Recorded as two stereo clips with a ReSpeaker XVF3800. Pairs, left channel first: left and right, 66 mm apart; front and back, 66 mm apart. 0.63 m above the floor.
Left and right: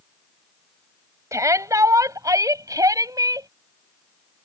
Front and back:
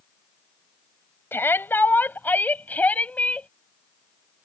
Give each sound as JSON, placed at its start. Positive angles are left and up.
{"t": 1.3, "sound": "a shout", "azimuth_deg": -55}